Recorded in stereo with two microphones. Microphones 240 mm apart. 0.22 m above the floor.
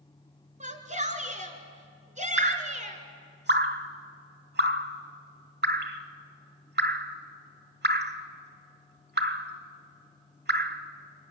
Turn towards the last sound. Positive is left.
turn(degrees=-45)  # may be behind; listen again after turning